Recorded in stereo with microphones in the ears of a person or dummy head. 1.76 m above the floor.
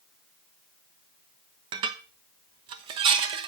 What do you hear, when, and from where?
1.7 s dishes clattering: 30° right (ahead or behind), 1.1 m